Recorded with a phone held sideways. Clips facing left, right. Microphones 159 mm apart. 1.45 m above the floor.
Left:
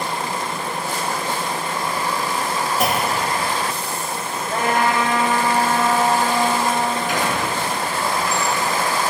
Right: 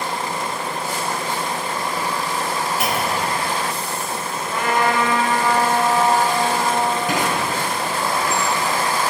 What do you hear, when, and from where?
2.8 s a clunk: 45° left (ahead or behind), 2.5 m
4.5 s a trumpet: 55° left (ahead or behind), 7 m
7.1 s a squeak: 80° right, 6.5 m